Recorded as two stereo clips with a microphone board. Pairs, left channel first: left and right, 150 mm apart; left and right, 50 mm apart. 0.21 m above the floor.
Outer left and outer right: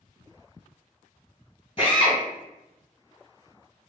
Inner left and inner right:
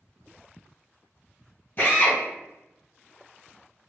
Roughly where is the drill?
Left.